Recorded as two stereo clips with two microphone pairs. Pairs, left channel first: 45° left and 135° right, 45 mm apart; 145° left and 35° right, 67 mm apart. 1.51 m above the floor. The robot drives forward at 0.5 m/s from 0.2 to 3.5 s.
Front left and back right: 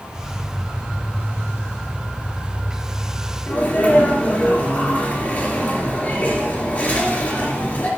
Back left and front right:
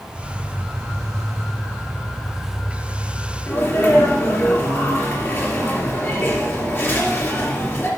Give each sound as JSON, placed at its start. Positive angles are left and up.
{"t": 3.5, "sound": "a sneeze", "azimuth_deg": 100, "distance_m": 2.5}